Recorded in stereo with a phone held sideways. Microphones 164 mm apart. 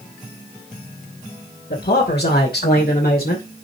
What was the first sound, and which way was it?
A man speaking, 85° left.